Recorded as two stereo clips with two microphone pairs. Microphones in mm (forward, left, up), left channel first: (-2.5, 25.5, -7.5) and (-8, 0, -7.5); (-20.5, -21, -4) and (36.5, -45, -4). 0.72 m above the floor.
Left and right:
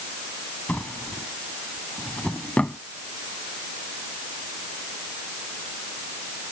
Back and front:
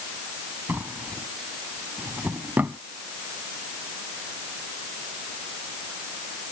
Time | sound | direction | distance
0.7 | a drawer | 40° left | ?